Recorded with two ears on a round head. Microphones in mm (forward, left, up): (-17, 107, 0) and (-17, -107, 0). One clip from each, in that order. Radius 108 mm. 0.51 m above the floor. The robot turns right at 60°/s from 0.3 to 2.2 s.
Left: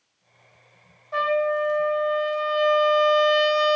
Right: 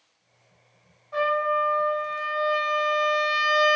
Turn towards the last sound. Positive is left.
turn(degrees=-165)